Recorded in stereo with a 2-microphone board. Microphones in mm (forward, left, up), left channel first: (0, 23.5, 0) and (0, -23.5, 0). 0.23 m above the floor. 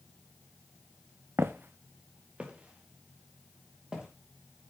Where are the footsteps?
60° right (ahead or behind), 0.7 m; by 4.1 s 20° right (ahead or behind), 4.5 m.